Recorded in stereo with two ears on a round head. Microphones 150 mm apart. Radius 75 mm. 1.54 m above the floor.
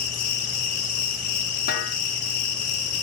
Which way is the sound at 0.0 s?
50° left (ahead or behind).